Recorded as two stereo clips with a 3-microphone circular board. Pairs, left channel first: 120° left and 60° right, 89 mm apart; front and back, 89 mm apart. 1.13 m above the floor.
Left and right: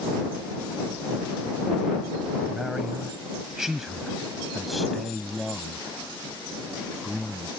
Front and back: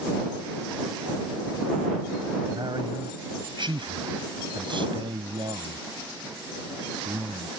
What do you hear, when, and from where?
2.5 s a man speaking: 145° right; by 7.5 s 155° right